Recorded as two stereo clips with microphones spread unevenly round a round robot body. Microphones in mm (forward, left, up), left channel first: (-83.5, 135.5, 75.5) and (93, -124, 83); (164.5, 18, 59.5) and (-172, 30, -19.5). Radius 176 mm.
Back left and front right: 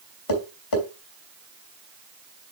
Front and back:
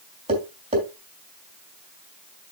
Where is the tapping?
105° left, 3 m.